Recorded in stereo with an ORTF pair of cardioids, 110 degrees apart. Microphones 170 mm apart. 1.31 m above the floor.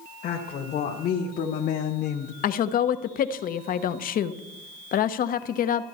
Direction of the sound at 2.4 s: 55° left.